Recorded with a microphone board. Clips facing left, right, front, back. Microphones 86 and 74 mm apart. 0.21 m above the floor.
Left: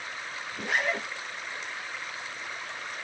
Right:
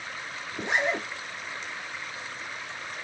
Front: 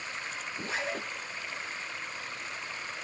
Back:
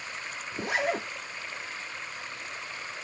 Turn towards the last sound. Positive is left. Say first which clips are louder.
# right 2 dB, back 7 dB
turn(degrees=-155)